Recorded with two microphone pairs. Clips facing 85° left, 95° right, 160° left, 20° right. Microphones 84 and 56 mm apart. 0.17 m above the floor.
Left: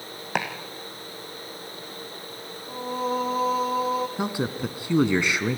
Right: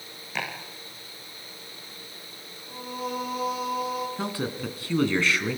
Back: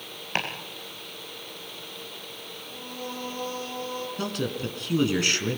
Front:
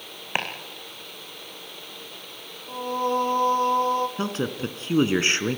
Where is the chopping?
55° left, 4.5 m.